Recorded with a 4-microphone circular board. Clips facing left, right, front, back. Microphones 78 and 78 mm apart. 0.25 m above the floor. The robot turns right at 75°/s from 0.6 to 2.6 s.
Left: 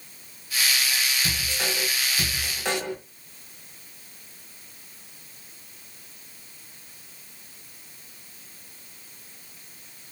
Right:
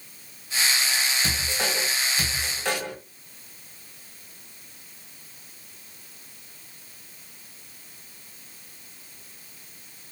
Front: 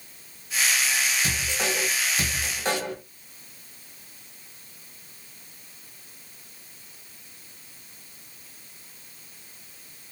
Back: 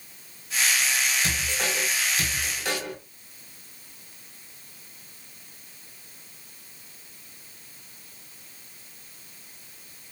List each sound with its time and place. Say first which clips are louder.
1.2 s a man speaking: right 1 dB, front 1 dB; 75° right, 1.4 m; by 3.0 s 30° left, 1.4 m